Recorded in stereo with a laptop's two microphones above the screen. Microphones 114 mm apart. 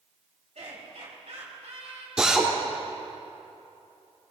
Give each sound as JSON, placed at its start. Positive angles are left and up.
{"t": 0.6, "sound": "laughter", "side_deg": -75, "distance_m": 4.0}
{"t": 2.2, "sound": "a drill", "side_deg": -5, "distance_m": 2.5}